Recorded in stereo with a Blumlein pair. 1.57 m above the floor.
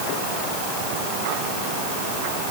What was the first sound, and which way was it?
Only background noise.